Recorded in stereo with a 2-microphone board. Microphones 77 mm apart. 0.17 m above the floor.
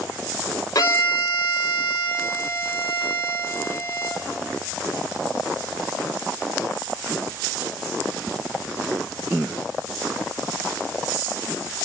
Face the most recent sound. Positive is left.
turn(degrees=45)  # may be behind; listen again after turning